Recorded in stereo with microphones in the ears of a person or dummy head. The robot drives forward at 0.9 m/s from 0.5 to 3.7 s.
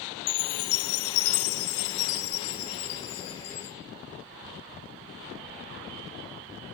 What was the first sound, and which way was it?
A chime, 80° left.